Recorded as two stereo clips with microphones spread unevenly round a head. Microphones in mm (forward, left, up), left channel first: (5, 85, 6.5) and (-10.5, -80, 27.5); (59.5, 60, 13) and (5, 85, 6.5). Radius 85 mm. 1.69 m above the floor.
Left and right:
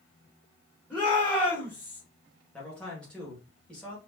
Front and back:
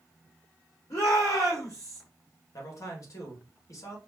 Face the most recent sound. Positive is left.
turn(degrees=0)